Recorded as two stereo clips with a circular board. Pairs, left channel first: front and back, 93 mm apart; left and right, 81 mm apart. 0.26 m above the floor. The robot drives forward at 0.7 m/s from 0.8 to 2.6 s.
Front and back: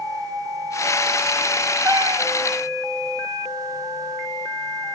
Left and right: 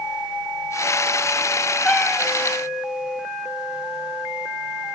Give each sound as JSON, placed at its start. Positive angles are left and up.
{"t": 1.9, "sound": "a cat meowing", "azimuth_deg": 170, "distance_m": 0.9}